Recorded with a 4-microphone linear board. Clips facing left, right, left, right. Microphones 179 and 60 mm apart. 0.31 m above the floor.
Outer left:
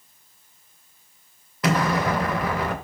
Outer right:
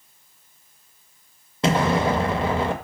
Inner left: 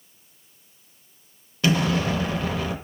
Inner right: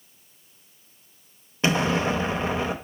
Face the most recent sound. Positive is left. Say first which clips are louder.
# outer right 2 dB, even
turn(degrees=-25)  # may be behind; listen again after turning